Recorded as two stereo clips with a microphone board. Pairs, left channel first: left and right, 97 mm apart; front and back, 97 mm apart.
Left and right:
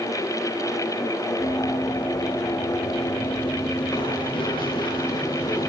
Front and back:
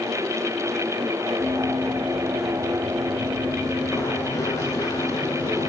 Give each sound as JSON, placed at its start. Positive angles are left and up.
{"t": 1.4, "sound": "running footsteps", "azimuth_deg": 80, "distance_m": 6.0}